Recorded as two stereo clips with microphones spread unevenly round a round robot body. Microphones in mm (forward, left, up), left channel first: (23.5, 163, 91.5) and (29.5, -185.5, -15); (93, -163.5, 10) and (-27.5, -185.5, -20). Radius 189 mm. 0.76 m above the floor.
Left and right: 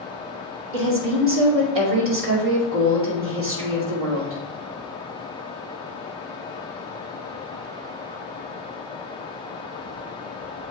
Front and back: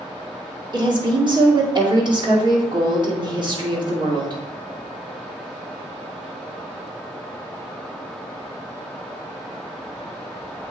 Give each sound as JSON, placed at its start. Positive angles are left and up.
{"t": 0.7, "sound": "a woman speaking", "azimuth_deg": -130, "distance_m": 2.5}